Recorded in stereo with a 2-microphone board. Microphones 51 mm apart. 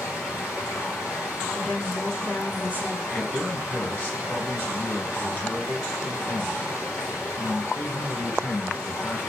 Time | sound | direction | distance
0.0 | running water | 50° left (ahead or behind) | 3 m
1.5 | a woman speaking | 40° left (ahead or behind) | 1.4 m
3.1 | a man speaking | 30° left (ahead or behind) | 2.5 m